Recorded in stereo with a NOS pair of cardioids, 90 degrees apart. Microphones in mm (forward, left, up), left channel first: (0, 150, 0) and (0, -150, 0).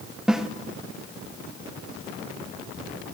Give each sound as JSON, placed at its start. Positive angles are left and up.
{"t": 0.3, "sound": "a snare drum", "azimuth_deg": 0, "distance_m": 2.5}